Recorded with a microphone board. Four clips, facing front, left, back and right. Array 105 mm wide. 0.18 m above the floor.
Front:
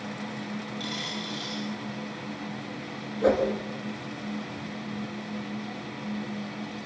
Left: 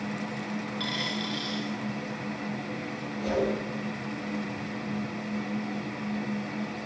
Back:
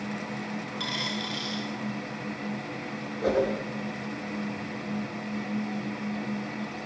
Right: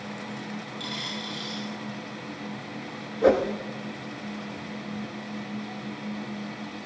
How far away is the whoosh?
About 7 m.